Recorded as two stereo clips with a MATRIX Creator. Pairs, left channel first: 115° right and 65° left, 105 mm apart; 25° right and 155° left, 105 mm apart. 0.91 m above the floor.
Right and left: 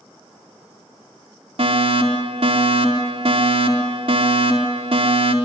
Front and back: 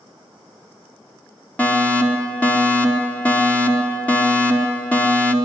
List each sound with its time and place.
1.6 s a fire alarm: 55° left, 4 m